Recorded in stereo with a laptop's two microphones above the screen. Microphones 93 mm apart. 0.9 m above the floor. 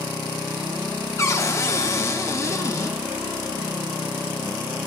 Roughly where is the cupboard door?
Left.